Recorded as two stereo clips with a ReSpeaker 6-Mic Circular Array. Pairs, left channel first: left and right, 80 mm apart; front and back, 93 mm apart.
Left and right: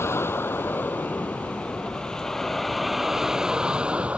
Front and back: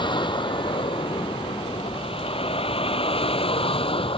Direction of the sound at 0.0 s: 35° left.